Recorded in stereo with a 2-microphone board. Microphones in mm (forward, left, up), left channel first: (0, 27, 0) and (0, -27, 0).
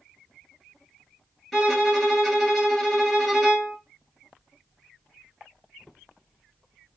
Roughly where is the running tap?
I don't hear a running tap.